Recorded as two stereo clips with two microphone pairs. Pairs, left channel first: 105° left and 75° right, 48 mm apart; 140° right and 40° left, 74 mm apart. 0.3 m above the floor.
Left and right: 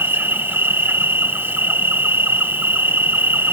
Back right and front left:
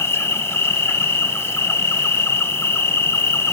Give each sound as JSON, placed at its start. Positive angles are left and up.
{"t": 0.0, "sound": "an insect", "azimuth_deg": -95, "distance_m": 1.1}